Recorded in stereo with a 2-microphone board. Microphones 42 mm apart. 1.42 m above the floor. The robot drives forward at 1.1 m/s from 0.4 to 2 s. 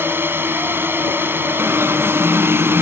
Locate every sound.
0.0 s a drone: 60° right (ahead or behind)
1.6 s an alarm: 90° right; by 2.8 s 85° right